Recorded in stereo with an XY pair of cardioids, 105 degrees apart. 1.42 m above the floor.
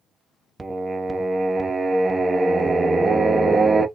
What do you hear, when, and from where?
0.6 s singing: 20° right, 0.8 m